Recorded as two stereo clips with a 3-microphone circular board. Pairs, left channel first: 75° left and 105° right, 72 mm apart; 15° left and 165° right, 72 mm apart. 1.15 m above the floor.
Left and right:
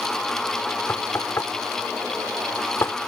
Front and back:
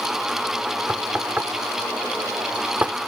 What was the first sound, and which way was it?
Knocking, 125° left.